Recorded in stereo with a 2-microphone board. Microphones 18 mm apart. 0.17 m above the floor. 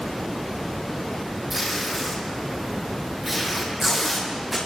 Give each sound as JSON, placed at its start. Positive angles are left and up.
{"t": 1.5, "sound": "tape being pulled", "side_deg": -10, "distance_m": 7.5}